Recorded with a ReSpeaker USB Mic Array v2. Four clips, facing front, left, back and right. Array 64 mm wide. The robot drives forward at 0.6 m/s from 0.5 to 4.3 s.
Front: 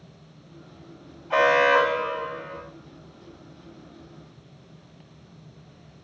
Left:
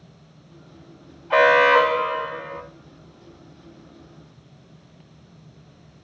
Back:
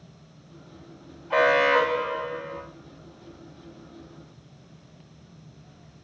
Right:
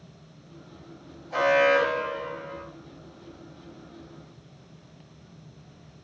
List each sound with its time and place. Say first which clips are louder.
1.3 s an alarm: left 6 dB, front 1 dB; 90° left, 4 m; by 2.6 s 100° left, 4 m